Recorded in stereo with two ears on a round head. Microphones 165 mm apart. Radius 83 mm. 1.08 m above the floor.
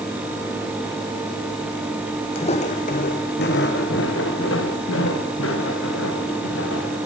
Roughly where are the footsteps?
Left.